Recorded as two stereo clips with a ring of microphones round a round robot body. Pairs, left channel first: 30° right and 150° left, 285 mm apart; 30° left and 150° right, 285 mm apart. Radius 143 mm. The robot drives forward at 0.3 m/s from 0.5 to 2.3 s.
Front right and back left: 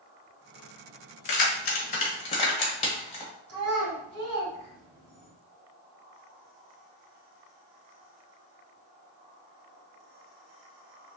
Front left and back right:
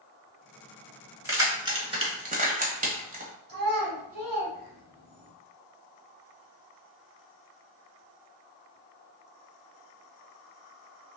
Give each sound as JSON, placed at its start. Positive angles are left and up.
{"t": 1.2, "sound": "keys jangling", "azimuth_deg": -70, "distance_m": 1.1}
{"t": 3.5, "sound": "a child speaking", "azimuth_deg": 160, "distance_m": 1.5}